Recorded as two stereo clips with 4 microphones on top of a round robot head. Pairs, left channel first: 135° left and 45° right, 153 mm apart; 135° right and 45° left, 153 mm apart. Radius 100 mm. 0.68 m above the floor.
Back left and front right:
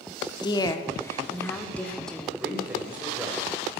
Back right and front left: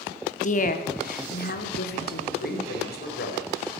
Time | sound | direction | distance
0.4 | a woman speaking | 165° right | 1.9 m
2.4 | a man speaking | 125° right | 4 m